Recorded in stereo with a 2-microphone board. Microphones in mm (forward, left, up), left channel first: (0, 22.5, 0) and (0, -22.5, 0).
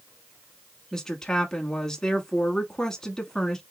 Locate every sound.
0.9 s a woman speaking: 10° left (ahead or behind), 1.1 m